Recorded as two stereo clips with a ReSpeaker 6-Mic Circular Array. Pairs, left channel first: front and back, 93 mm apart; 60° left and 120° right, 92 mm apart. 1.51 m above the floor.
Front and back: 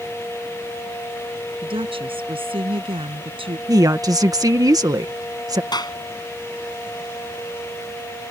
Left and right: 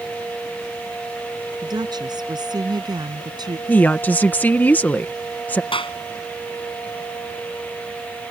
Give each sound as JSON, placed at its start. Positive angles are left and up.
{"t": 1.6, "sound": "a woman speaking", "azimuth_deg": -160}
{"t": 3.7, "sound": "a woman speaking", "azimuth_deg": 130}
{"t": 5.7, "sound": "a clap", "azimuth_deg": 40}